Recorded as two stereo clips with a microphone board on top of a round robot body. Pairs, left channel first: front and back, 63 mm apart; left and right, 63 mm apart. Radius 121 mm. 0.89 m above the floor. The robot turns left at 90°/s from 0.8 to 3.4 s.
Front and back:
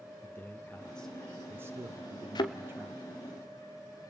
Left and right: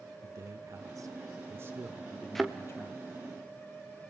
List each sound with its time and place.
0.2 s a man speaking: 60° right, 1.4 m; by 3.0 s 95° left, 1.4 m
2.4 s a thud: 5° left, 1.0 m; by 2.6 s 15° right, 1.0 m